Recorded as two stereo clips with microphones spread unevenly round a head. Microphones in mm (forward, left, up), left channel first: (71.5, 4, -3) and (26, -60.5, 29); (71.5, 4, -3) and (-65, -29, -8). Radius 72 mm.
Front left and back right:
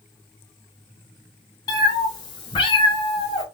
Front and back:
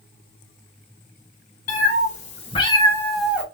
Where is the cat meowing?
10° left, 1.8 m; by 3.4 s 120° left, 1.2 m.